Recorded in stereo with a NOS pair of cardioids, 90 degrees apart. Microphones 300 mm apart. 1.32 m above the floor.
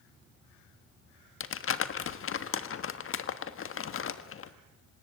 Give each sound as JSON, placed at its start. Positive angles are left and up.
{"t": 1.4, "sound": "crumpling", "azimuth_deg": 45, "distance_m": 1.5}